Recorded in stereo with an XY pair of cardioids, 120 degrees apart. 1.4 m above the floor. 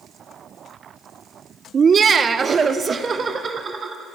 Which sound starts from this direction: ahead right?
Laughter, at 1.7 s.